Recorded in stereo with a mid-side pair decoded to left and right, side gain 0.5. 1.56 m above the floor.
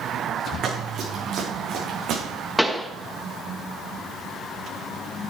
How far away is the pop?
About 1.7 m.